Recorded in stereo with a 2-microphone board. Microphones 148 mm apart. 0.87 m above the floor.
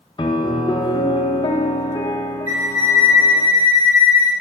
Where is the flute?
45° right (ahead or behind), 2 m.